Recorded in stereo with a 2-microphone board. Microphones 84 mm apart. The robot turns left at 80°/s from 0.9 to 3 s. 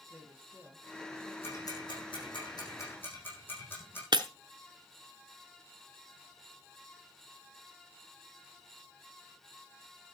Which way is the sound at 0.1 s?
160° right.